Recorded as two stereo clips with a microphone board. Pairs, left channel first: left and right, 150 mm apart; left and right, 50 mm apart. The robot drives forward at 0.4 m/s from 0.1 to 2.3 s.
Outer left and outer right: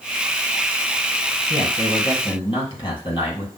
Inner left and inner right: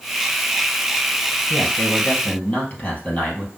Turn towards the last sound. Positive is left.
turn(degrees=30)  # may be behind; listen again after turning